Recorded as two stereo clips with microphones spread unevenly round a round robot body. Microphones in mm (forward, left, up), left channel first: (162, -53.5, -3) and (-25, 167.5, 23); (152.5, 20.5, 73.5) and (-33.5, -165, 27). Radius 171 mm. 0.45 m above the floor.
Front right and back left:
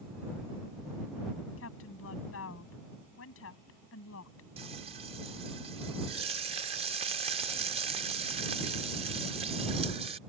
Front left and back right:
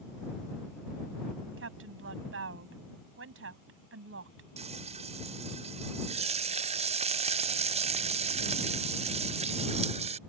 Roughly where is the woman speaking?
Right.